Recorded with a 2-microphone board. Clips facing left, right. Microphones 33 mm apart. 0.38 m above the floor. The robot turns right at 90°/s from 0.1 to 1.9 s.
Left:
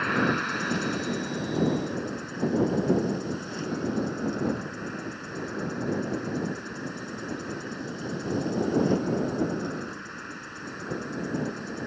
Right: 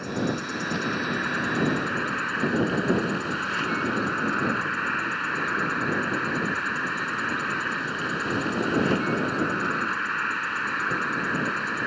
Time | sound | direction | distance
0.0 | an insect | 130° left | ?